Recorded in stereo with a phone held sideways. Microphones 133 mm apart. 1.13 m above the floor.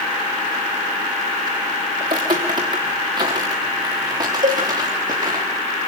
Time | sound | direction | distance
2.0 | footsteps | 35° right (ahead or behind) | 5.5 m
4.4 | a cowbell | 70° right (ahead or behind) | 2.0 m